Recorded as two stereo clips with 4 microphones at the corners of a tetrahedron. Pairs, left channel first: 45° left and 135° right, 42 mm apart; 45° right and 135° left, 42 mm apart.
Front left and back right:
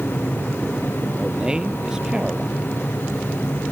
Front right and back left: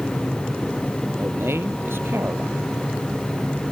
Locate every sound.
1.2 s a man speaking: 155° left